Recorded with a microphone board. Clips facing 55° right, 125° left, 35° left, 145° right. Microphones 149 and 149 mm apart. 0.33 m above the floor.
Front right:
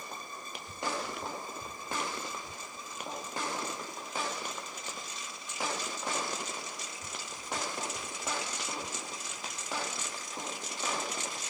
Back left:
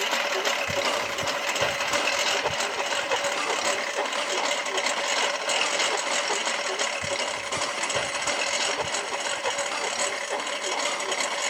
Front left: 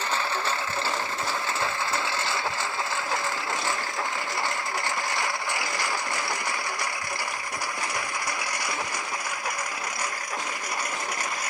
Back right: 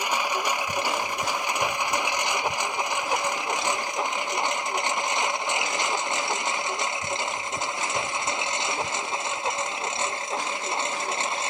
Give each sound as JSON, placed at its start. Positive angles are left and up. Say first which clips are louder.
{"t": 0.0, "sound": "a lawn mower", "louder": "back left 17 dB, back right 1 dB", "azimuth_deg": 135}